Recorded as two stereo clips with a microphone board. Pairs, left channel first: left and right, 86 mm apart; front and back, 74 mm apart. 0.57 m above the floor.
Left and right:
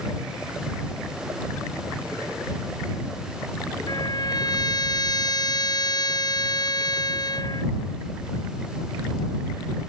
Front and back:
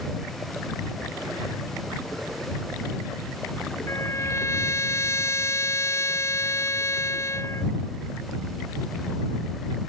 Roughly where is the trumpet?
Ahead left.